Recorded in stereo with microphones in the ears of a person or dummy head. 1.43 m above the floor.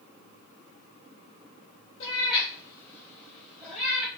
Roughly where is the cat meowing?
Left.